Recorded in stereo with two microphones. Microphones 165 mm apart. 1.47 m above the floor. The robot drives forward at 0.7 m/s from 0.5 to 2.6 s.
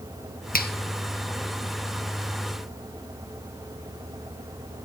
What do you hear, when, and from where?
0.5 s a finger snap: 65° left (ahead or behind), 0.8 m; by 0.7 s 70° left (ahead or behind), 0.8 m